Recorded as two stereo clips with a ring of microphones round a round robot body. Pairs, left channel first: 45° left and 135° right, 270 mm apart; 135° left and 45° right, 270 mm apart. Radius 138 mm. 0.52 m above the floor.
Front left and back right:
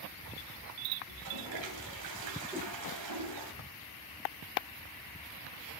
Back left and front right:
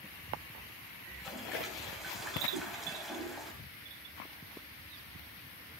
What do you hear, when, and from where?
1.1 s a toilet flushing: 135° right, 3 m
2.5 s a whoosh: 55° right, 1.4 m